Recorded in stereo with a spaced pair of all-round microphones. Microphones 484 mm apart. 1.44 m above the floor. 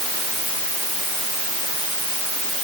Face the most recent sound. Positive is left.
No sound to turn to.